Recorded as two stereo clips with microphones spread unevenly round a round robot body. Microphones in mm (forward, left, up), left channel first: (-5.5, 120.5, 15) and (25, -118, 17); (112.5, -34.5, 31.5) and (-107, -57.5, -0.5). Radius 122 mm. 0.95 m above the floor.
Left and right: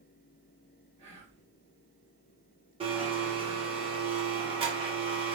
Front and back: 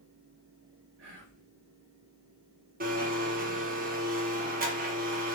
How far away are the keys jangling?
No keys jangling in this recording.